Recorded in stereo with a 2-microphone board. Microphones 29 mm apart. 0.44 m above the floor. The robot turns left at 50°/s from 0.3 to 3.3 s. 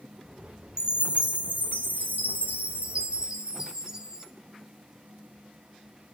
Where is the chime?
25° right, 3.5 m; by 4.2 s 150° right, 3.5 m.